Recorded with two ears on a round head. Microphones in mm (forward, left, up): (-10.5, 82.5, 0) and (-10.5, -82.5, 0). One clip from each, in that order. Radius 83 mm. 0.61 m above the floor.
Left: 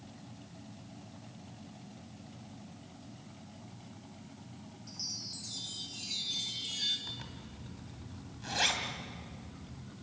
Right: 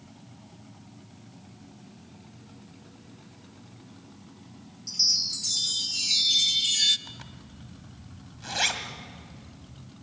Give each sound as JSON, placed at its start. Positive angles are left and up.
{"t": 4.9, "sound": "a chime", "side_deg": -75, "distance_m": 1.0}
{"t": 7.1, "sound": "a zipper", "side_deg": -15, "distance_m": 2.0}